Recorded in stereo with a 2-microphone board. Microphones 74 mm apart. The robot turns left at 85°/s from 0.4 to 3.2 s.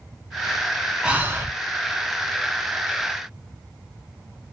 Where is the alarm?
I don't hear an alarm.